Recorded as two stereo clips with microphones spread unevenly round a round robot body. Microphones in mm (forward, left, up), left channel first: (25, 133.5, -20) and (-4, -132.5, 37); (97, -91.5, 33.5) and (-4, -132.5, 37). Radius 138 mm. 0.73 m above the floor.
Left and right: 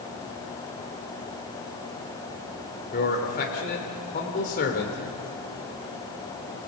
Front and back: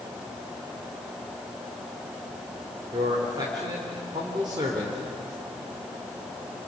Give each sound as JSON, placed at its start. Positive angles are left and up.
{"t": 2.9, "sound": "a man speaking", "azimuth_deg": 140, "distance_m": 2.5}